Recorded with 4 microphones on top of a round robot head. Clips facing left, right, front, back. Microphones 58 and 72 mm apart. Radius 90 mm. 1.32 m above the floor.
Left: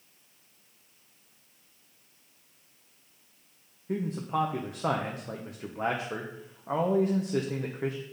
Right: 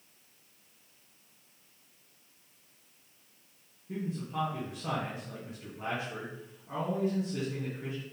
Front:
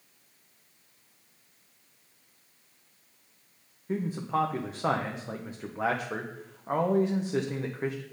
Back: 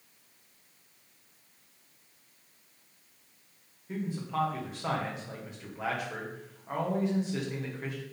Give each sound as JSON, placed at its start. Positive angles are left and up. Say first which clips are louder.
{"t": 3.9, "sound": "a man speaking", "louder": "left 6 dB, front 5 dB", "azimuth_deg": 50, "distance_m": 1.0}